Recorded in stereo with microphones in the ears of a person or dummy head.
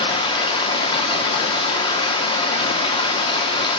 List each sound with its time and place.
0.0 s running water: 35° left (ahead or behind), 0.8 m